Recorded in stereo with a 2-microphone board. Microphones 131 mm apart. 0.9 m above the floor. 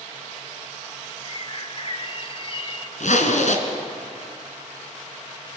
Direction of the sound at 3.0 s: 70° left (ahead or behind).